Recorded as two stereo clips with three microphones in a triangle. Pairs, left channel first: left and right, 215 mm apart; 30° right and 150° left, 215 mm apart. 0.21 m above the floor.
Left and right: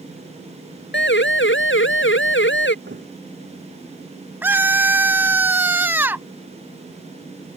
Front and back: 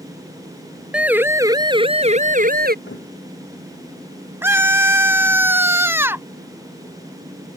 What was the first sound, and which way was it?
A siren, 65° left.